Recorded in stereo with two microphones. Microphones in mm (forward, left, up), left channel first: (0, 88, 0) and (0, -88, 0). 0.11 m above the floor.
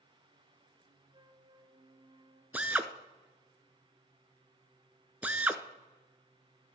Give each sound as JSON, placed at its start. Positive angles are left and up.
{"t": 1.1, "sound": "a flute", "side_deg": -25, "distance_m": 1.1}
{"t": 2.5, "sound": "a drill", "side_deg": -10, "distance_m": 0.6}